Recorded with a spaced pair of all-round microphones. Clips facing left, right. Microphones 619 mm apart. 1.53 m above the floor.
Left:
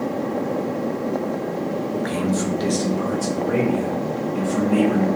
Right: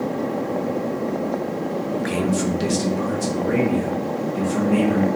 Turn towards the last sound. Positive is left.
turn(degrees=-40)  # may be behind; listen again after turning